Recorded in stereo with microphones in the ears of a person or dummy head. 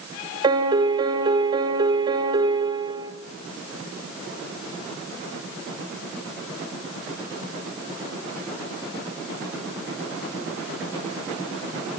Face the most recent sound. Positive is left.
turn(degrees=-25)  # may be behind; listen again after turning